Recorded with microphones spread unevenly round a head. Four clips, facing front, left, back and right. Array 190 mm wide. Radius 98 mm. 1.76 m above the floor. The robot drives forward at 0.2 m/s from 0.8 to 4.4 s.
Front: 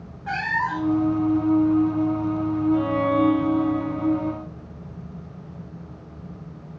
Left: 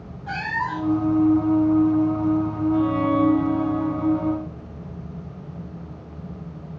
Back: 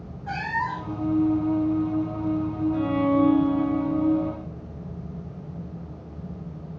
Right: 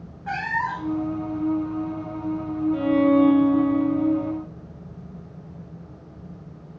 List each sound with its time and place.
0.3 s a cat meowing: 70° right, 1.0 m; by 1.1 s 80° right, 1.0 m
2.7 s a violin: 105° right, 0.7 m; by 4.3 s 125° right, 0.8 m